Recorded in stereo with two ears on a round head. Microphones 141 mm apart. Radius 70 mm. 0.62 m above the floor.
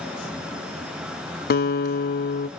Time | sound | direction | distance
1.5 | a guitar | 60° left (ahead or behind) | 0.7 m